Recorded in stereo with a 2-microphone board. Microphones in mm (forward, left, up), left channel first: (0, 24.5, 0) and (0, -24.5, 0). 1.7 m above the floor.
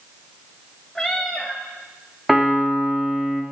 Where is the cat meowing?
5° left (ahead or behind), 1.3 m.